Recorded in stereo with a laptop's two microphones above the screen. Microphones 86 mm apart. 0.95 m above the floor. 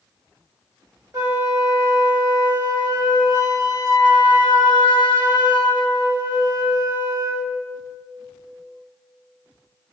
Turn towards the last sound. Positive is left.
turn(degrees=-40)  # may be behind; listen again after turning